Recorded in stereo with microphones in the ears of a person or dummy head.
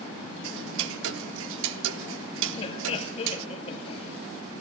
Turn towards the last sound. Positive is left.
turn(degrees=35)  # may be behind; listen again after turning